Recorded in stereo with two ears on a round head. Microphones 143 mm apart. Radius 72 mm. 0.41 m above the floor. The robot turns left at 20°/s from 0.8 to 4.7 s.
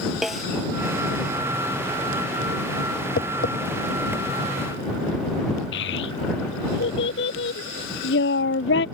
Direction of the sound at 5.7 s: 80° left.